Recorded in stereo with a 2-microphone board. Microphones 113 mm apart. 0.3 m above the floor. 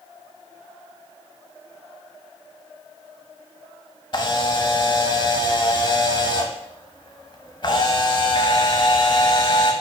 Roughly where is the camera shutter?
Left.